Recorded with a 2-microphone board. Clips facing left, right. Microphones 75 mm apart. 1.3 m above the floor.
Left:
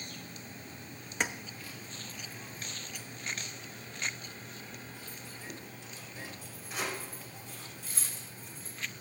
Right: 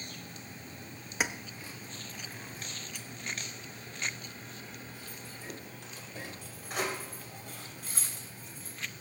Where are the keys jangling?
5° right (ahead or behind), 1.0 m; by 9.0 s 60° right (ahead or behind), 6 m.